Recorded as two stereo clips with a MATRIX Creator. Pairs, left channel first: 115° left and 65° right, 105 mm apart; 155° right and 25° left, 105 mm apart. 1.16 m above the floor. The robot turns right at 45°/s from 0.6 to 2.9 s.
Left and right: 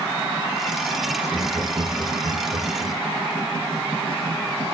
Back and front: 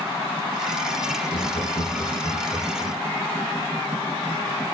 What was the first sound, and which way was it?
Laughter, 155° right.